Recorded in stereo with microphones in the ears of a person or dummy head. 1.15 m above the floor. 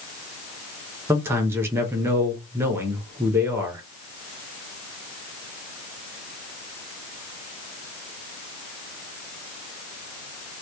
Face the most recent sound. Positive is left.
turn(degrees=-10)  # may be behind; listen again after turning